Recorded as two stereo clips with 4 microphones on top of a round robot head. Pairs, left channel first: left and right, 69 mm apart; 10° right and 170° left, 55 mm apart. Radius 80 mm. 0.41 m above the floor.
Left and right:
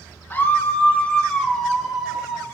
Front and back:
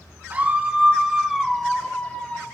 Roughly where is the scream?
Behind left.